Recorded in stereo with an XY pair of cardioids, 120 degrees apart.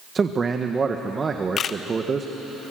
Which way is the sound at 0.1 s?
30° right.